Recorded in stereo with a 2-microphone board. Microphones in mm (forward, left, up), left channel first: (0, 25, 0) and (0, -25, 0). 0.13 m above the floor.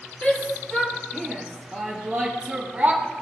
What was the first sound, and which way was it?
A shout, 25° left (ahead or behind).